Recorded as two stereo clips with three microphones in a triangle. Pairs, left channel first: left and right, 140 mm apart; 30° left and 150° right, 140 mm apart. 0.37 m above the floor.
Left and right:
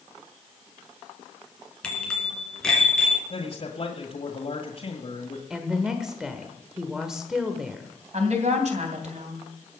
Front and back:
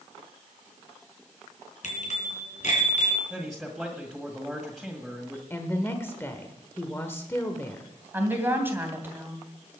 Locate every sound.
1.8 s a bicycle bell: 5° left, 3 m
3.3 s a man speaking: 120° left, 1.7 m
5.5 s a woman speaking: 10° right, 1.4 m
8.1 s a woman speaking: 75° right, 3 m